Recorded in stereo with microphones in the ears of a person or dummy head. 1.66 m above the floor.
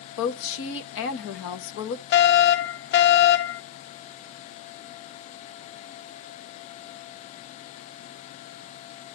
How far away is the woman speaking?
About 1.2 m.